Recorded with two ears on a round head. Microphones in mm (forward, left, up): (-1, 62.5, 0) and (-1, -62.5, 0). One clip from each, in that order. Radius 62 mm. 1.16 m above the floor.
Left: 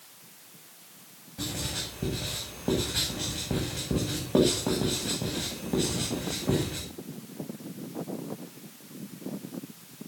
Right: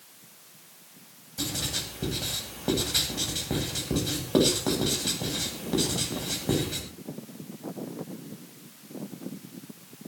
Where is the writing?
75° right (ahead or behind), 9 m.